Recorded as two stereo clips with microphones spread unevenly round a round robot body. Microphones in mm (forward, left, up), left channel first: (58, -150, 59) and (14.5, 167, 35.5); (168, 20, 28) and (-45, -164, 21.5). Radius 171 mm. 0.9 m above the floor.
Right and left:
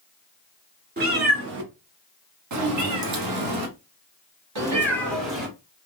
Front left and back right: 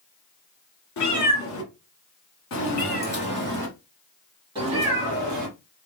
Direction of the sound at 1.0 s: 35° left.